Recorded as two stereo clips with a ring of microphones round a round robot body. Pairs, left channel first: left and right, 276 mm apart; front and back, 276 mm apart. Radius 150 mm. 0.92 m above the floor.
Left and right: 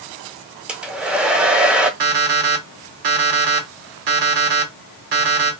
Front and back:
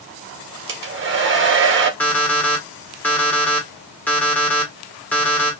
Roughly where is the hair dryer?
Behind.